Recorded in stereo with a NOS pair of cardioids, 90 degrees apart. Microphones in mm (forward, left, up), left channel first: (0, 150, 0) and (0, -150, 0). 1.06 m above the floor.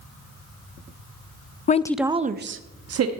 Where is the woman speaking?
30° left, 0.6 m; by 3.1 s 55° right, 1.4 m.